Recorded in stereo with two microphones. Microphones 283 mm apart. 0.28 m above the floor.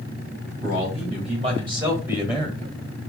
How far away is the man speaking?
About 1.8 m.